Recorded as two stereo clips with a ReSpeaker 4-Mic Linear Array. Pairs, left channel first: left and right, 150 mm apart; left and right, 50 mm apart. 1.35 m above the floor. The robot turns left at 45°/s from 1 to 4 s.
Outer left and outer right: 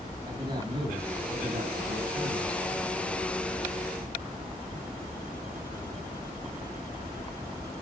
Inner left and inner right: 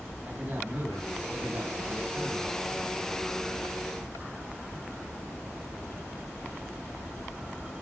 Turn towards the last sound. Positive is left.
turn(degrees=-165)